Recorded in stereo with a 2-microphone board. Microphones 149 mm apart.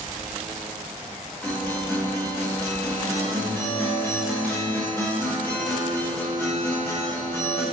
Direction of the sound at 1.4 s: 10° left (ahead or behind).